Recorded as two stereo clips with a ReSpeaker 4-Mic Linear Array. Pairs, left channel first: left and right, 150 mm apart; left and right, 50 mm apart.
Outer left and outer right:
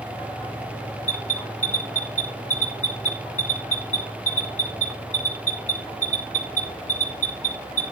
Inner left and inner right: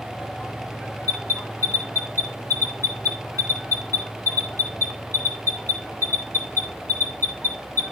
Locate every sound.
1.1 s an alarm: 55° left (ahead or behind), 4.5 m